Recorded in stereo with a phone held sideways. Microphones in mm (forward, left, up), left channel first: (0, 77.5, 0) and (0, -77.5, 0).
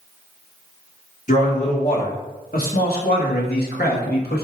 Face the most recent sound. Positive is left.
turn(degrees=75)  # may be behind; listen again after turning